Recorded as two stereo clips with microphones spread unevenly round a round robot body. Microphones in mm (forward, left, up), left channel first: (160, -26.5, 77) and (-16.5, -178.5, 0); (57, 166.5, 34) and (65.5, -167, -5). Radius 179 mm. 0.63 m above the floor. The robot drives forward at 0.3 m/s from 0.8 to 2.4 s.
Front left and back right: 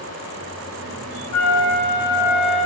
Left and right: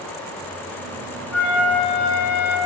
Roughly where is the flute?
Ahead left.